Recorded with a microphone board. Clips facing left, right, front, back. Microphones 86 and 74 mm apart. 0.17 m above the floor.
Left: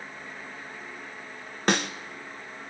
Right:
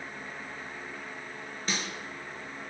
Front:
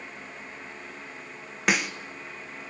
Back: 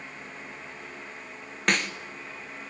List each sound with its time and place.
1.7 s a snare drum: 80° left, 0.7 m